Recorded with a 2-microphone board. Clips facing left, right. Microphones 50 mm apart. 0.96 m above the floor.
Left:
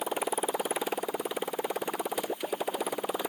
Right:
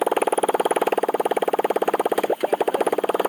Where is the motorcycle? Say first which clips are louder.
Right 11 dB; 60° right (ahead or behind).